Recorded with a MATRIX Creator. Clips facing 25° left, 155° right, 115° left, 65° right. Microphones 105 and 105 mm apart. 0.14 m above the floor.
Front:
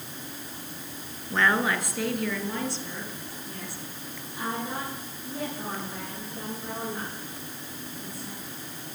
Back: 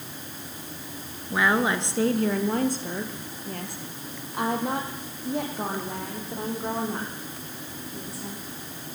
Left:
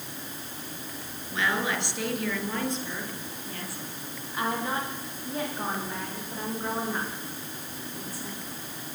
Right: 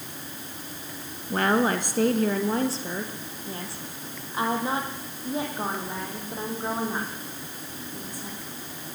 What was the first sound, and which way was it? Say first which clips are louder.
A woman speaking: back 2 dB, right 6 dB; 80° right.